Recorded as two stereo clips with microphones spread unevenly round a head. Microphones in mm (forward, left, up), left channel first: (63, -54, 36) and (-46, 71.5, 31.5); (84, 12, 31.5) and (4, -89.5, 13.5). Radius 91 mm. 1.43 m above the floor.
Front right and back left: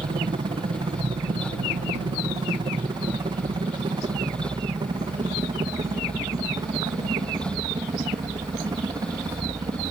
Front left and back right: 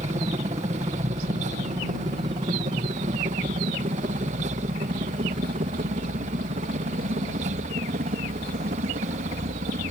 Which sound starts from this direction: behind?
A helicopter, at 0.0 s.